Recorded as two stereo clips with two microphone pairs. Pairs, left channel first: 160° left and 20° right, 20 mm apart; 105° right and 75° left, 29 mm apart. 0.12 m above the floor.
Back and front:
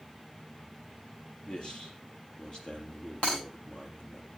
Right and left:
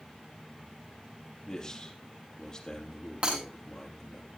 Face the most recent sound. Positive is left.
turn(degrees=120)